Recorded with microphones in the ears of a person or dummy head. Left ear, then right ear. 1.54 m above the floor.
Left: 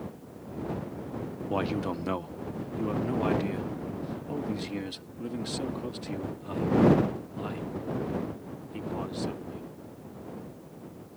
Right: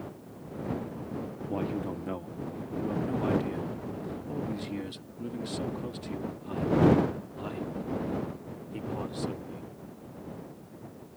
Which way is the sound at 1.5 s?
45° left (ahead or behind).